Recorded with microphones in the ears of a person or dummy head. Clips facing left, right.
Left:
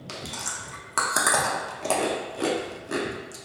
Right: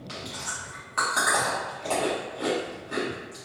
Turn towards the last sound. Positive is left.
turn(degrees=55)  # may be behind; listen again after turning